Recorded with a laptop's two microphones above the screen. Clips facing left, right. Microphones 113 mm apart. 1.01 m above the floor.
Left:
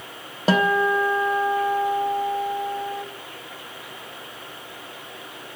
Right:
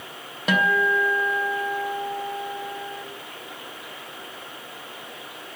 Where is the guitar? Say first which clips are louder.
Left 3 dB; 35° left (ahead or behind), 0.7 m.